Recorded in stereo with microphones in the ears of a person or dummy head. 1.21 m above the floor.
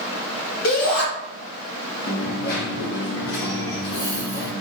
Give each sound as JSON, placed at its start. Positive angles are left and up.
{"t": 0.6, "sound": "a shout", "side_deg": 70, "distance_m": 1.9}
{"t": 2.1, "sound": "a dropped coin", "side_deg": 60, "distance_m": 1.3}